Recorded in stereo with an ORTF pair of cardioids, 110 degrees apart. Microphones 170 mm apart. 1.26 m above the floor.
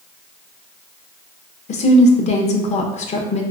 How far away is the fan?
I don't hear a fan.